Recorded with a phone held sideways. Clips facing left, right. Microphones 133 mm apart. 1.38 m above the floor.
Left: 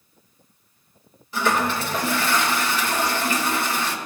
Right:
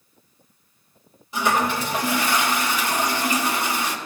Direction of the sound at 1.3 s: 15° right (ahead or behind).